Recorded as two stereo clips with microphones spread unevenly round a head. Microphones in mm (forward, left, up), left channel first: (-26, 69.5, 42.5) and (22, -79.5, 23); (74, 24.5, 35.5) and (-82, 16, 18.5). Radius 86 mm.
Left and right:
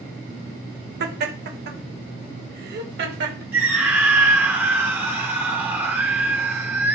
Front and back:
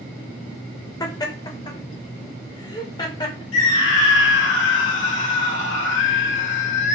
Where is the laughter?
65° right, 1.8 m.